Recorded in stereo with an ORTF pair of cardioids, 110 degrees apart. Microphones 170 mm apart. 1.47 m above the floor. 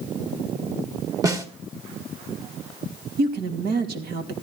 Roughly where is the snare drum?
Ahead.